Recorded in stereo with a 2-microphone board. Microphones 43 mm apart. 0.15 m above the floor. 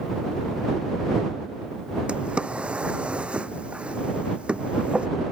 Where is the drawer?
25° right (ahead or behind).